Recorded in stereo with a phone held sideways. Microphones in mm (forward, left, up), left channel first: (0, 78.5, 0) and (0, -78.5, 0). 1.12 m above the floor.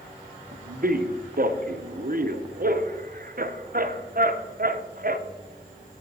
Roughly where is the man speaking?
Right.